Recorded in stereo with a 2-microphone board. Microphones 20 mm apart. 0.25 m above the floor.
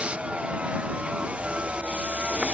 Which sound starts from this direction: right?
A vehicle, at 0.0 s.